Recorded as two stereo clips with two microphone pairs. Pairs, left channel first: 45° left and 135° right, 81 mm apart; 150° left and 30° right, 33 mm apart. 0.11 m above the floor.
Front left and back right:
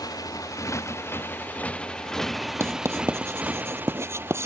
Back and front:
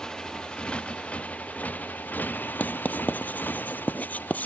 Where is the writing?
175° left.